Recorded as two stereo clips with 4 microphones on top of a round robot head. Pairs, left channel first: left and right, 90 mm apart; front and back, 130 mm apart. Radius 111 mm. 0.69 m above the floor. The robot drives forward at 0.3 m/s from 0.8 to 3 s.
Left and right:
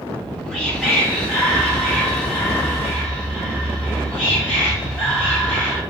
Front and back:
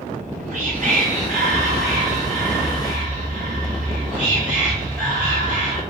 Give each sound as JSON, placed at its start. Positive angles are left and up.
{"t": 0.1, "sound": "whispering", "azimuth_deg": 180, "distance_m": 0.9}